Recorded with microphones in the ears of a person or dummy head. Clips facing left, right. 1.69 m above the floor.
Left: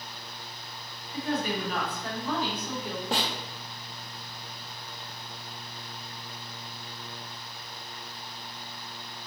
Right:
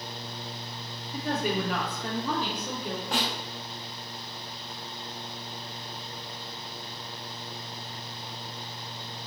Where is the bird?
I don't hear a bird.